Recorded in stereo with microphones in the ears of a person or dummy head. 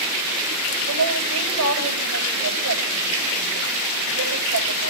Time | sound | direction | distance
0.9 | a woman speaking | 85° right | 8.5 m